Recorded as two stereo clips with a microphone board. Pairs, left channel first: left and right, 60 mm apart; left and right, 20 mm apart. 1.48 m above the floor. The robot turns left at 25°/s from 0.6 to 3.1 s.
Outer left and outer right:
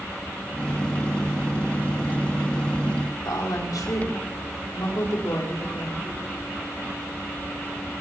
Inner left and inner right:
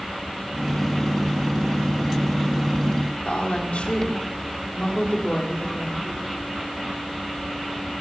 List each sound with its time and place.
3.2 s a woman speaking: 80° left, 4.5 m